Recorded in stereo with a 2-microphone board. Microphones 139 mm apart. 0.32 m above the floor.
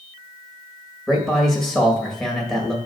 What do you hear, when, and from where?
1.1 s a man speaking: 5° left (ahead or behind), 1.7 m